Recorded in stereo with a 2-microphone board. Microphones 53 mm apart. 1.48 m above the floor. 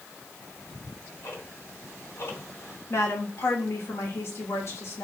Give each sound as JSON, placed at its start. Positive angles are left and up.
{"t": 0.4, "sound": "ticking", "side_deg": 60, "distance_m": 3.0}
{"t": 2.9, "sound": "a woman speaking", "side_deg": 55, "distance_m": 2.5}